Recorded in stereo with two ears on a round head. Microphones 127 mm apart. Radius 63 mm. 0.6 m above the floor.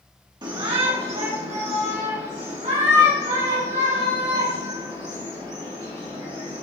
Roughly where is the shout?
Right.